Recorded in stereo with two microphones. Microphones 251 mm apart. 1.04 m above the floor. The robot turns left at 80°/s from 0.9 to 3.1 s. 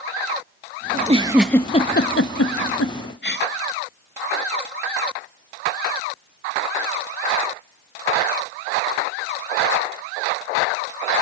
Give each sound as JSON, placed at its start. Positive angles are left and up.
{"t": 0.9, "sound": "a giggle", "side_deg": -40, "distance_m": 0.8}